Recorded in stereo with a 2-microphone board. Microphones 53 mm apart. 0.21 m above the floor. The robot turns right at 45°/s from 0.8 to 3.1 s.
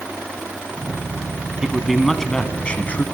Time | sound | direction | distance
1.6 | a man speaking | 20° right | 1.4 m